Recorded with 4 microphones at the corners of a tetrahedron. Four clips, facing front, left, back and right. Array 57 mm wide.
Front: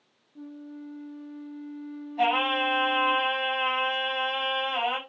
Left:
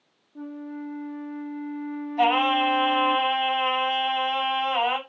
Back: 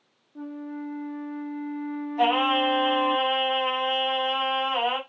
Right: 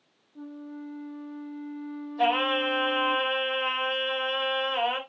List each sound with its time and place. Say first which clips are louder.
0.3 s a flute: left 5 dB, back 6 dB; 140° left, 0.7 m
2.2 s singing: left 4 dB, back 2 dB; 90° left, 5.5 m